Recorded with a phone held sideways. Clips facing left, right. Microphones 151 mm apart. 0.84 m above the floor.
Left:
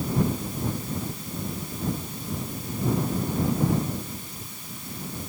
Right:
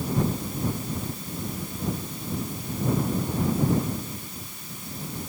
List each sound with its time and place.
Only background noise.